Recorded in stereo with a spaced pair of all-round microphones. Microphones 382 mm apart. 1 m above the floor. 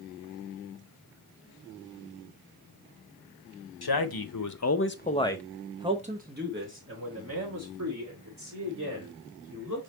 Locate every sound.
3.8 s a man speaking: 75° left (ahead or behind), 0.8 m; by 9.9 s 50° right (ahead or behind), 2.5 m